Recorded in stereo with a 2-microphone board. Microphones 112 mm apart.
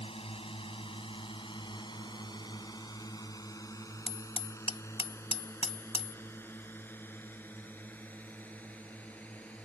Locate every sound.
0.0 s a drone: 60° left (ahead or behind); by 9.7 s 10° left (ahead or behind)
4.1 s hammering: 55° left (ahead or behind)